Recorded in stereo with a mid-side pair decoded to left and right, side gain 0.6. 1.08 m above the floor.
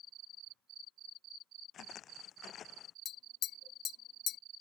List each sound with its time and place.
1.7 s footsteps: 50° left
3.0 s tapping: 60° left